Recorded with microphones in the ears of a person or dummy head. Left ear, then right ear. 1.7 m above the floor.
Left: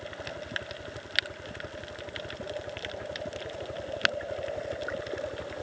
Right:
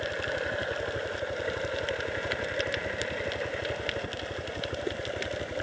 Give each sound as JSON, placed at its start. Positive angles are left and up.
{"t": 0.0, "sound": "a helicopter", "side_deg": 35}